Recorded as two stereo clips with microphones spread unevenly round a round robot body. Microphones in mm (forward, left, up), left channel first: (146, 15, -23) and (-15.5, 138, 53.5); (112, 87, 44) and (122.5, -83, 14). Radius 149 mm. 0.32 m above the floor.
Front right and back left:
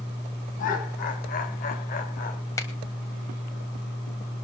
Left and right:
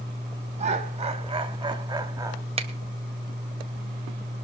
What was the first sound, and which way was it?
Laughter, 55° right.